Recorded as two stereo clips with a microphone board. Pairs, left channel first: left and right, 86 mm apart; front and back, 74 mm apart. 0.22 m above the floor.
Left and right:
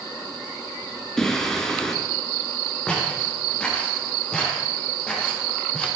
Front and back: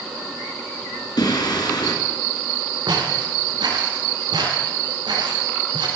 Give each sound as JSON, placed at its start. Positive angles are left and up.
{"t": 1.2, "sound": "singing", "azimuth_deg": 10, "distance_m": 2.5}
{"t": 2.9, "sound": "footsteps", "azimuth_deg": 170, "distance_m": 6.5}